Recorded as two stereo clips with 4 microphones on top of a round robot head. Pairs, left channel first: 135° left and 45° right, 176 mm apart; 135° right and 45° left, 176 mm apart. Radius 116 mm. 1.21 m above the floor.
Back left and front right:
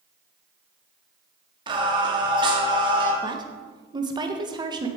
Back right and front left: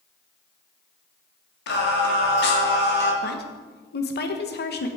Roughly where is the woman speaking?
Right.